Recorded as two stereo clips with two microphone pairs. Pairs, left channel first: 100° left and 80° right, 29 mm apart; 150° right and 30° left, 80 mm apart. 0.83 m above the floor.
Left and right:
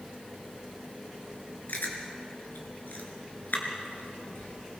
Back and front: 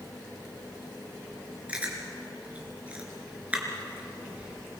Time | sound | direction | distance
1.7 | chewing | 105° left | 4 m